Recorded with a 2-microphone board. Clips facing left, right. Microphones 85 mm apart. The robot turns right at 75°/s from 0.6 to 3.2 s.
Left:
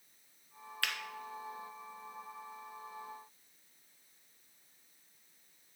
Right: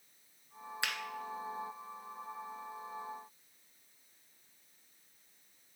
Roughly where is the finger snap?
Right.